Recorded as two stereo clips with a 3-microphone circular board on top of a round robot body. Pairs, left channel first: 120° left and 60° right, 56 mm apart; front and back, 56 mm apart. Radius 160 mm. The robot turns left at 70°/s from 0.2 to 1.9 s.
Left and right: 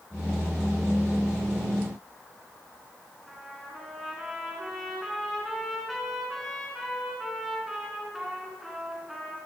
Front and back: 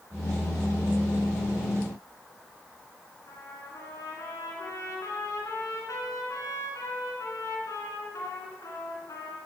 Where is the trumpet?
25° left, 3 m.